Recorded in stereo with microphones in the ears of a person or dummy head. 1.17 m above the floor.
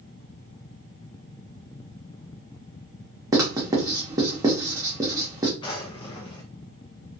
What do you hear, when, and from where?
3.3 s writing: 25° right (ahead or behind), 0.9 m
5.6 s a drawer: 25° left (ahead or behind), 0.7 m